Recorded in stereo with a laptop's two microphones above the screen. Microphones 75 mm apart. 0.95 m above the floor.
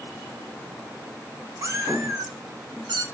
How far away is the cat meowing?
About 1.3 m.